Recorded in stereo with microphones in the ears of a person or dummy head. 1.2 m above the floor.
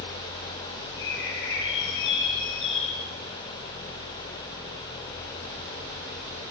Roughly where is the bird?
Left.